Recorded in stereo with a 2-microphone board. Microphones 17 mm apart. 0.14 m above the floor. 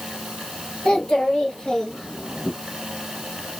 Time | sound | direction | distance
0.8 | a child speaking | 60° left (ahead or behind) | 1.6 m